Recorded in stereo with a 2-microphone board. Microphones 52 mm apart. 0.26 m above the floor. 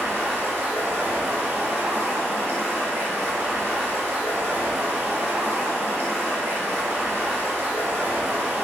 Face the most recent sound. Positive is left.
turn(degrees=-55)  # may be behind; listen again after turning